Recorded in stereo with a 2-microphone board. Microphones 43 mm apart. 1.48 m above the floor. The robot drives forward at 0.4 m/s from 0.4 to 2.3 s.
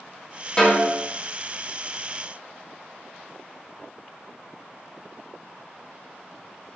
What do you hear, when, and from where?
0.6 s a snare drum: 25° left (ahead or behind), 1.0 m